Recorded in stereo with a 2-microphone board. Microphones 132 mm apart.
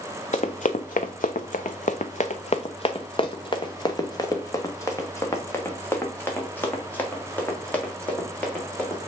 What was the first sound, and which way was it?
Running footsteps, 60° left (ahead or behind).